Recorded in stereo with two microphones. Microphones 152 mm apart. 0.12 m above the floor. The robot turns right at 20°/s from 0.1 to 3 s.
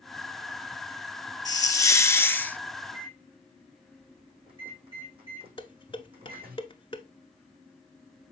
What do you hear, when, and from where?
1.4 s a hiss: 25° left (ahead or behind), 0.5 m; by 2.6 s 10° left (ahead or behind), 0.5 m
2.8 s a microwave: 35° right (ahead or behind), 5 m
5.6 s dishes clattering: 35° left (ahead or behind), 0.9 m